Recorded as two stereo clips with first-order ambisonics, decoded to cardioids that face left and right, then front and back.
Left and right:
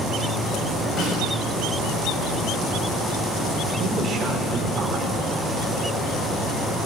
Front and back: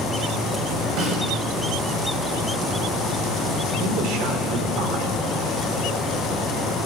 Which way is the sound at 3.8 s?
155° right.